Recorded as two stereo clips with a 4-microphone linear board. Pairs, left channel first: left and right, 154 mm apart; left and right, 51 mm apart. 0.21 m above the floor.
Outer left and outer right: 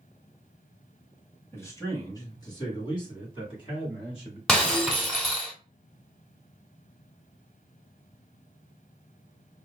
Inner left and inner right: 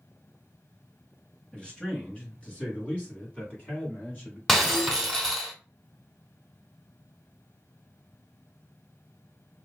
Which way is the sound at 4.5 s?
5° left (ahead or behind).